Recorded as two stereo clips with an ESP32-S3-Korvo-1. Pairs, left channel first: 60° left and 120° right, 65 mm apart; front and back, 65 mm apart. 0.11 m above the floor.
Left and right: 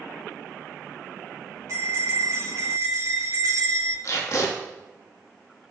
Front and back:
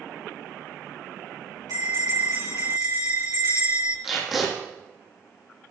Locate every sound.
1.7 s a bell: 160° right, 5.5 m
4.0 s tape being pulled: 90° left, 3 m